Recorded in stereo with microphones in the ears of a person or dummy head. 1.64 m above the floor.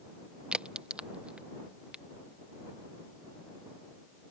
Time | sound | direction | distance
0.5 | a crack | 5° right (ahead or behind) | ?